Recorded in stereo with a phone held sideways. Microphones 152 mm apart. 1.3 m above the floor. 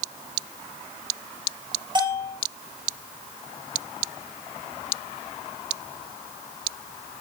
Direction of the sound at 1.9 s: 30° right (ahead or behind).